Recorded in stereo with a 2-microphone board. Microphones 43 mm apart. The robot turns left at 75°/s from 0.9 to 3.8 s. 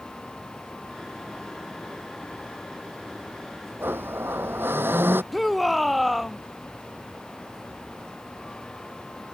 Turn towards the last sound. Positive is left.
turn(degrees=0)  # may be behind; listen again after turning